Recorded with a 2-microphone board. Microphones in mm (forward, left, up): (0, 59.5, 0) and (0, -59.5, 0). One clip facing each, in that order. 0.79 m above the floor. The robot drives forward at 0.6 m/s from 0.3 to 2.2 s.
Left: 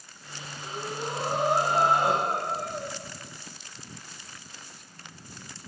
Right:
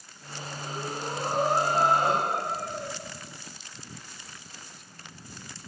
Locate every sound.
0.6 s breathing: 15° left (ahead or behind), 5.5 m